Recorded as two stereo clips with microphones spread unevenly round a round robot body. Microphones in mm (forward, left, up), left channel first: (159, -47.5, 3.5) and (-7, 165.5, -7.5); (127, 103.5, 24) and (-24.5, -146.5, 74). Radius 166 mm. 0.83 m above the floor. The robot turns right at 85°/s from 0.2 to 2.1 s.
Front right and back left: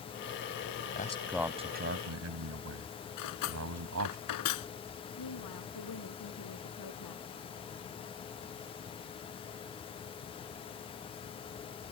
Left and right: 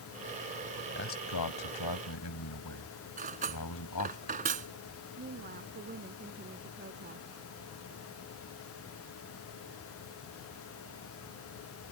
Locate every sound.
0.9 s a man speaking: 5° left; by 4.2 s 100° left
3.2 s cutlery clinking: 60° right
5.2 s a woman speaking: 65° right